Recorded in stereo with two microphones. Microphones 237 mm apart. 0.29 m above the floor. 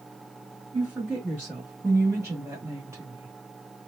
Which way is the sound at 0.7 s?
10° right (ahead or behind).